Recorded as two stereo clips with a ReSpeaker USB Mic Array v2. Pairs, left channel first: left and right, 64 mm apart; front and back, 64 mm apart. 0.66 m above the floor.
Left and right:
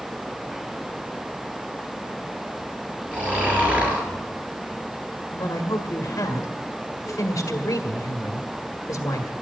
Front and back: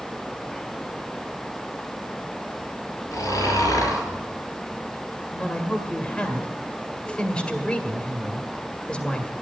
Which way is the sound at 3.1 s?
25° right.